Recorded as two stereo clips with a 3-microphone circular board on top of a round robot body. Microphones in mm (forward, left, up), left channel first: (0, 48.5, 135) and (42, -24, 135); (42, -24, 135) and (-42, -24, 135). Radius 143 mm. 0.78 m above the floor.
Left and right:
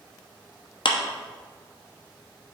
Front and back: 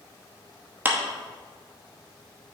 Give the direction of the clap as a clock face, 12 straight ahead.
8 o'clock.